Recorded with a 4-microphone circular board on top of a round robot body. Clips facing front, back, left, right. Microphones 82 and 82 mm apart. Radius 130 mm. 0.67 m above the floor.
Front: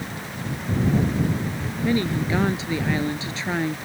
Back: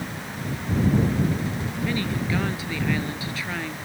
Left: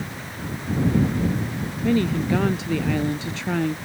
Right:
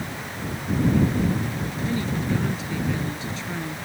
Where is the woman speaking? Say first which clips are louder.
Front 5 dB, left 6 dB; 65° left.